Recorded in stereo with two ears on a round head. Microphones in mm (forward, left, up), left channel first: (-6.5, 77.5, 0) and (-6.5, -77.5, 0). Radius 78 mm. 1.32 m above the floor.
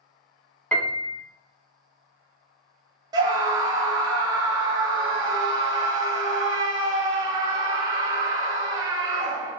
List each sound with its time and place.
0.7 s a piano: 10° left (ahead or behind), 0.6 m
3.1 s a scream: 20° right (ahead or behind), 0.8 m